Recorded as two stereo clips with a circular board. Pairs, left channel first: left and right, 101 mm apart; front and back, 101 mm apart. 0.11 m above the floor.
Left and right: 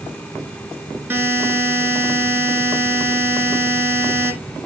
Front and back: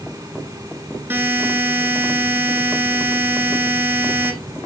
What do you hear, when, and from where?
1.1 s a buzzer: 135° right, 1.4 m